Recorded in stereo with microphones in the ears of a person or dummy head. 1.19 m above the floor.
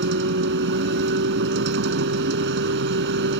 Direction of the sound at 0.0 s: 70° right (ahead or behind).